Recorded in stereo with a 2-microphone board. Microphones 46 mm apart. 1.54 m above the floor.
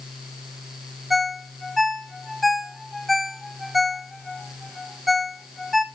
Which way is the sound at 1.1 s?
Centre (ahead or behind).